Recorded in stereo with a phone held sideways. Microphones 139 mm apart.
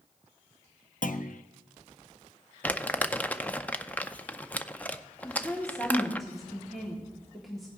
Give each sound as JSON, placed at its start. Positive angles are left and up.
{"t": 1.0, "sound": "a clunk", "side_deg": 70, "distance_m": 0.6}
{"t": 2.6, "sound": "crumpling", "side_deg": 10, "distance_m": 0.5}
{"t": 5.2, "sound": "a woman speaking", "side_deg": 0, "distance_m": 2.0}